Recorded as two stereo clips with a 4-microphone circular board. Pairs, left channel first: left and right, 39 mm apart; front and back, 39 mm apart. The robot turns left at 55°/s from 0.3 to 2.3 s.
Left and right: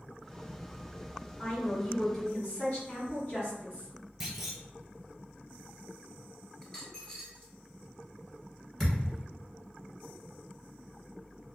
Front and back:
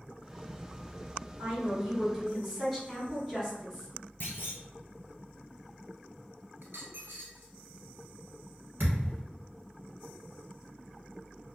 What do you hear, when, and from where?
1.4 s a woman speaking: 155° left, 1.8 m; by 3.9 s 105° left, 1.8 m
4.2 s a clunk: 5° right, 0.8 m
6.6 s a dropped coin: 165° left, 1.0 m
8.8 s a thud: 175° left, 1.1 m